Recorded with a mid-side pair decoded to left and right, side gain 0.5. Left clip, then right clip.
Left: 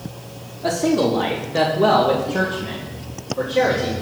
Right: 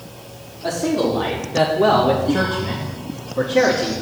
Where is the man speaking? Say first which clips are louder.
Left 1 dB; 25° left, 1.3 m; by 3.9 s 45° right, 1.9 m.